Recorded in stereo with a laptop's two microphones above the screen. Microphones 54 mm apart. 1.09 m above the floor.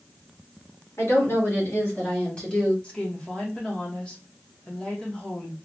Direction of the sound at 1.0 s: 65° left (ahead or behind).